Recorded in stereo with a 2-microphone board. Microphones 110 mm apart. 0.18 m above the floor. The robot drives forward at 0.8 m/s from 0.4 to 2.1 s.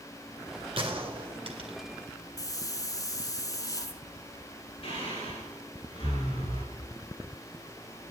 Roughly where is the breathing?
Left.